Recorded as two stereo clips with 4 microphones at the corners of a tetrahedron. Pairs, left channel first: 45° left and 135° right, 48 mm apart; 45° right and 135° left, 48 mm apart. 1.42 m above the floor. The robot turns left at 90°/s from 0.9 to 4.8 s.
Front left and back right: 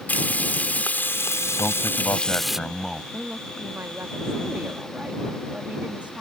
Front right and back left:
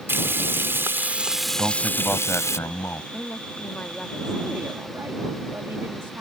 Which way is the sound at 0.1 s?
95° left.